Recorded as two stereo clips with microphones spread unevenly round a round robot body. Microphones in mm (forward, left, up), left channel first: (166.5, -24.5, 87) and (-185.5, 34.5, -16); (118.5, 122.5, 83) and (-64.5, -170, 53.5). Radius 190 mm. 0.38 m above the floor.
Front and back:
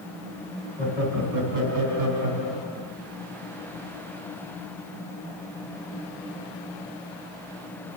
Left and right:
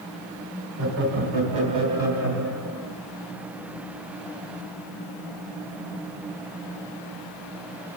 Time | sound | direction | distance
0.8 | laughter | 130° right | 3.5 m